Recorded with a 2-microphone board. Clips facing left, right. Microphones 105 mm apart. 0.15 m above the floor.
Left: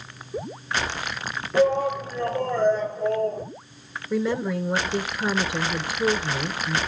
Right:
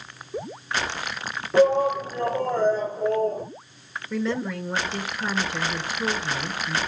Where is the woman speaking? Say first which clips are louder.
Left 3 dB; 10° left (ahead or behind), 2.5 m.